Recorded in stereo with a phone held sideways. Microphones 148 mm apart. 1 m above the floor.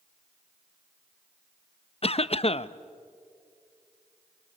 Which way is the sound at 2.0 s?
45° left (ahead or behind).